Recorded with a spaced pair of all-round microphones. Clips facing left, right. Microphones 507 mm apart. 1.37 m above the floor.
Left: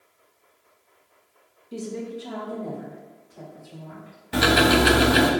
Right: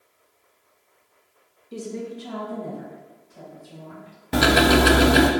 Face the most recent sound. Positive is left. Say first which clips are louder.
# right 2 dB
turn(degrees=-60)  # may be behind; listen again after turning